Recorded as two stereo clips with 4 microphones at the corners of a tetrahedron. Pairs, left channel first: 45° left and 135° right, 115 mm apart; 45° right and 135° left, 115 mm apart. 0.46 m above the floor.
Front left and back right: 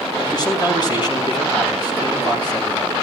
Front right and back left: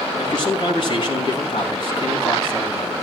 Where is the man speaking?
Straight ahead, 3.5 m.